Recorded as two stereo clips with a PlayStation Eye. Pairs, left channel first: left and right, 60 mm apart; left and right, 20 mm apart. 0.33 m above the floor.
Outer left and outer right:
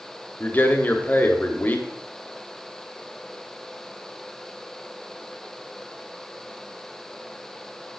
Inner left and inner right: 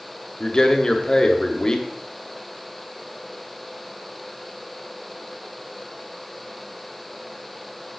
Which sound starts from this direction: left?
A man speaking, at 0.4 s.